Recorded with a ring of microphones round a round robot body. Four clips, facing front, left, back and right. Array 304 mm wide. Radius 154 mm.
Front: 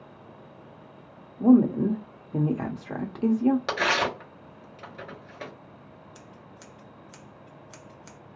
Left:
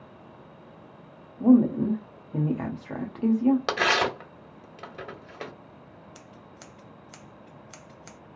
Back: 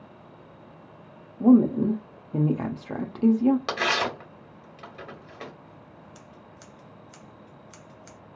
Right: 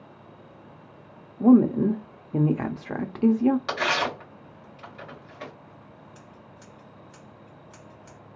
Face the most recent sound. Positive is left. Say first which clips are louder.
# even, even
turn(degrees=85)